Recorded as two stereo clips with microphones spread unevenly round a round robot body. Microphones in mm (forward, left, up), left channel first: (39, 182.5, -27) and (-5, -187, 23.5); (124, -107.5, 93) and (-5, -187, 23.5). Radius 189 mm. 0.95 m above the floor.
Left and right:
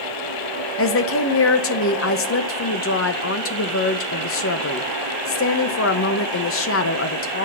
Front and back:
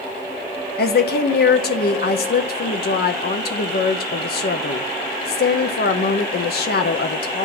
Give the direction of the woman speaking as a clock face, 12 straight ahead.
10 o'clock.